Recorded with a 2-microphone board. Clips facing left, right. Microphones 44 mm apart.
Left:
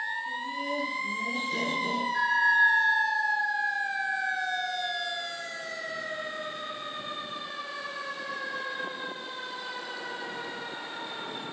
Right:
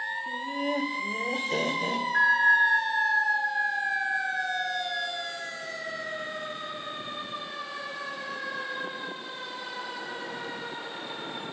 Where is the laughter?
35° right (ahead or behind), 0.8 m; by 2.0 s 65° right (ahead or behind), 1.7 m.